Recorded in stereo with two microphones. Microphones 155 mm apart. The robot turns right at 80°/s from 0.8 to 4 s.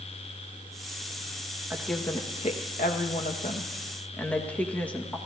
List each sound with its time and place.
1.7 s a woman speaking: 15° right, 1.5 m; by 5.2 s 170° left, 1.5 m